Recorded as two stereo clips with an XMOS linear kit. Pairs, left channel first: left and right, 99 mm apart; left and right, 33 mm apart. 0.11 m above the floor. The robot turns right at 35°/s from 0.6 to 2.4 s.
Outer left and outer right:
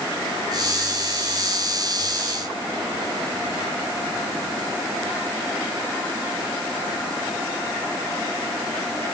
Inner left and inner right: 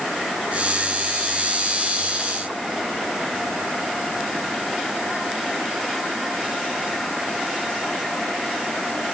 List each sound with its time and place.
Only background noise.